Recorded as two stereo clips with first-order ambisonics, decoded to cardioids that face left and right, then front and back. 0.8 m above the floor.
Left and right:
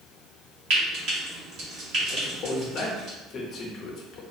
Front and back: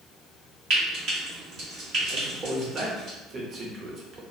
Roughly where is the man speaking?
Behind left.